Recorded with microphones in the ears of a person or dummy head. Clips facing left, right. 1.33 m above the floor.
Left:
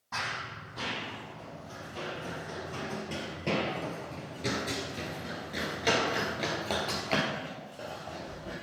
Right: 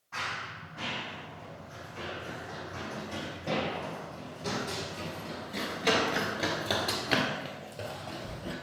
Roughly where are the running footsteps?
Left.